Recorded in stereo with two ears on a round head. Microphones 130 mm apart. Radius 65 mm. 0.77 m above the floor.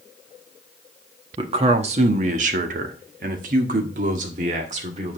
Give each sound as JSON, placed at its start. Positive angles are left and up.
{"t": 1.4, "sound": "a man speaking", "side_deg": -40, "distance_m": 1.3}